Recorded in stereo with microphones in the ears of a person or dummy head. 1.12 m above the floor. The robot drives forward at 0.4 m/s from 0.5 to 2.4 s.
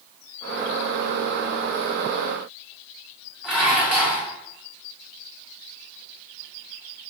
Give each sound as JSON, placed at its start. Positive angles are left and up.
{"t": 3.4, "sound": "dishes clattering", "side_deg": -10, "distance_m": 0.8}